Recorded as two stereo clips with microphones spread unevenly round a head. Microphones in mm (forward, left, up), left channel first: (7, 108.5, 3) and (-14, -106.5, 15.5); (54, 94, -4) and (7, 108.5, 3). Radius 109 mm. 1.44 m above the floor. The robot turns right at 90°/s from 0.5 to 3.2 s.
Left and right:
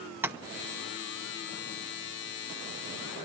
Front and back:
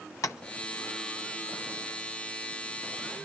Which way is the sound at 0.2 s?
15° right.